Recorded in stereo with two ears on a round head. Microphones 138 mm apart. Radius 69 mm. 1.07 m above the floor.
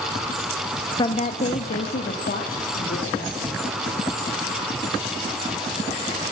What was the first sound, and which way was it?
A woman speaking, 25° left (ahead or behind).